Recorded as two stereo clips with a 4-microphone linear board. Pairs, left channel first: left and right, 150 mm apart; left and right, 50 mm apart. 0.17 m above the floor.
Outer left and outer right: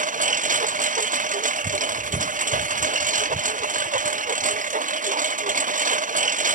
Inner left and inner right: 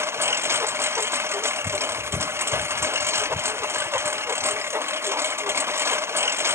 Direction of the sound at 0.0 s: 60° right (ahead or behind).